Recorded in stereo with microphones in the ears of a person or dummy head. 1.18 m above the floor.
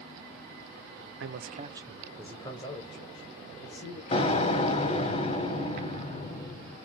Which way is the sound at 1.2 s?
70° right (ahead or behind).